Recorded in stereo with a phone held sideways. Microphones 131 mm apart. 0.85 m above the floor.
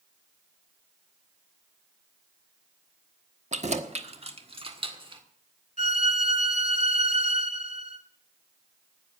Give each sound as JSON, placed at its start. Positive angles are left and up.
{"t": 3.5, "sound": "keys jangling", "side_deg": -65, "distance_m": 1.2}
{"t": 5.8, "sound": "a violin", "side_deg": 80, "distance_m": 2.5}